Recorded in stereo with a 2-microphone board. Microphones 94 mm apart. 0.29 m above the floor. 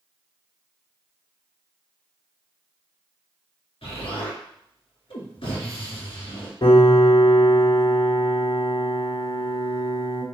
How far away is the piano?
About 2 m.